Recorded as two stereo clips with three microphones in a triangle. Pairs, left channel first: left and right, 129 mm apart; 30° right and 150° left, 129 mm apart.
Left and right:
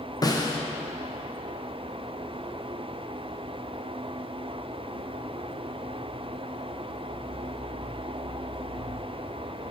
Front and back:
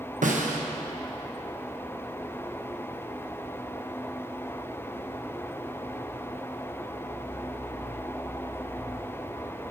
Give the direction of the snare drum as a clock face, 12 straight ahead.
7 o'clock.